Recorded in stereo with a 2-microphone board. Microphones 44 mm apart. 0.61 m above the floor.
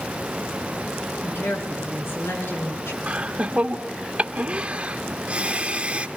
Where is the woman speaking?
75° left (ahead or behind), 7.5 m; by 3.0 s 80° left, 8 m.